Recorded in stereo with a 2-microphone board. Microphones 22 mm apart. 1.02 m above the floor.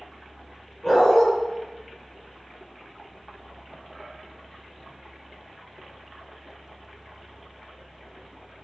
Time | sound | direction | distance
0.8 | a dog barking | 15° left (ahead or behind) | 2.0 m